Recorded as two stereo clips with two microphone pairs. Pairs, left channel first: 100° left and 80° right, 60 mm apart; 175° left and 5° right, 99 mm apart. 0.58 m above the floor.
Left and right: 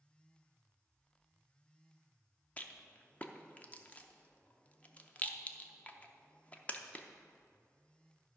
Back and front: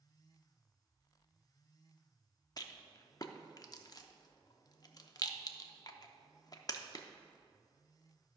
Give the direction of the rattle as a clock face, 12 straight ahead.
7 o'clock.